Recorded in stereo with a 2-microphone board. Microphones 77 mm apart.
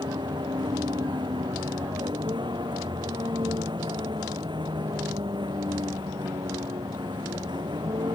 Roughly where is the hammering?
No hammering in this recording.